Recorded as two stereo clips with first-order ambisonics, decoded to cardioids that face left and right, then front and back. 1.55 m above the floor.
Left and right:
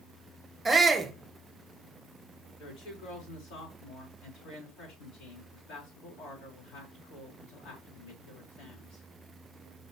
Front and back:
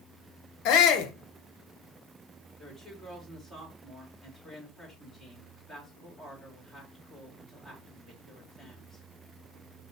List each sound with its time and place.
0.7 s a shout: 10° right, 0.7 m
2.6 s a woman speaking: 75° left, 3.5 m